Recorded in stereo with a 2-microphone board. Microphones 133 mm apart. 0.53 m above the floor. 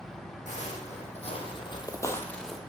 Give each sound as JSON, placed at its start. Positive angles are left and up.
{"t": 0.5, "sound": "footsteps", "side_deg": 65, "distance_m": 1.2}